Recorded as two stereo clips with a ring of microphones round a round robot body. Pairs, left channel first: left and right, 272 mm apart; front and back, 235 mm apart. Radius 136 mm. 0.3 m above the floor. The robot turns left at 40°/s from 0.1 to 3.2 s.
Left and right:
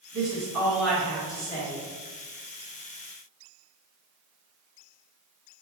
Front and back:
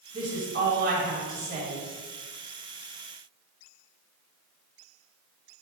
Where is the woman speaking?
155° right, 1.6 m; by 1.9 s 140° left, 1.6 m.